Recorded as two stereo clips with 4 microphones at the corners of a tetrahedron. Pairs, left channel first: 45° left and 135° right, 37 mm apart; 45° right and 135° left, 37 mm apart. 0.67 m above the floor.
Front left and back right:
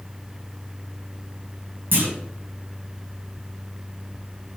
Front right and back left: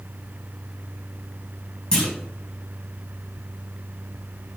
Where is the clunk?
115° right, 3.5 m.